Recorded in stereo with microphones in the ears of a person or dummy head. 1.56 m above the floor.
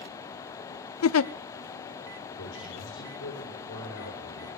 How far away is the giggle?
About 0.5 m.